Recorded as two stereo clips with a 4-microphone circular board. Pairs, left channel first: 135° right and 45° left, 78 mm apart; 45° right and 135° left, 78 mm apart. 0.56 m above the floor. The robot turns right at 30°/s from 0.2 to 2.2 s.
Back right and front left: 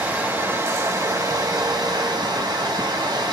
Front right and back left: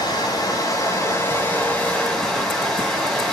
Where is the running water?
20° right, 4 m; by 3.3 s 40° left, 4 m.